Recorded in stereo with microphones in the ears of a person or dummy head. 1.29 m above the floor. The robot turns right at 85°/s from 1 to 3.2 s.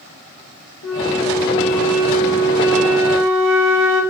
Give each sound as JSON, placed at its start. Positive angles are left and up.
{"t": 0.8, "sound": "a flute", "azimuth_deg": 100, "distance_m": 2.0}